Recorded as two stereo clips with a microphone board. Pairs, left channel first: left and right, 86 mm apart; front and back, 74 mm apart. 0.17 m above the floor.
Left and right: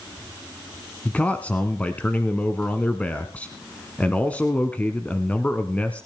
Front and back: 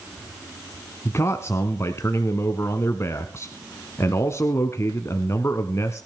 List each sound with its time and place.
1.1 s a man speaking: 25° left, 1.3 m